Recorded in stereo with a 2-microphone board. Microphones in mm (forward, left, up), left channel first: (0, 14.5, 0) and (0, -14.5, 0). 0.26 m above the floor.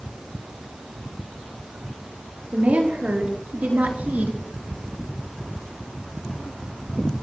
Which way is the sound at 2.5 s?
70° right (ahead or behind).